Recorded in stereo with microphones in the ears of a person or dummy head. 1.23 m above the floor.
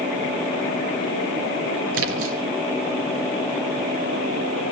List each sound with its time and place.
1.9 s a splash: 75° right (ahead or behind), 4 m